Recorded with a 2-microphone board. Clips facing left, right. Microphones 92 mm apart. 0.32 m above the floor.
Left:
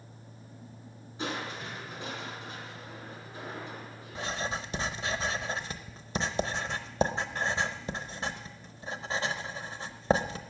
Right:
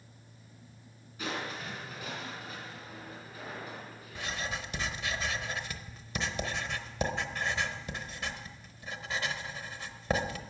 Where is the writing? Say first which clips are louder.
Left 3 dB; 30° left (ahead or behind), 0.8 m.